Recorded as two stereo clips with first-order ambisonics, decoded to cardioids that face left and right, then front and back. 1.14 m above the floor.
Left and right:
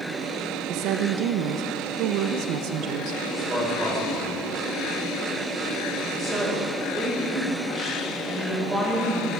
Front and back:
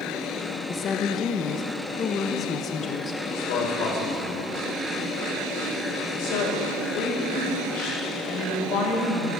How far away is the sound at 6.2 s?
About 4.5 m.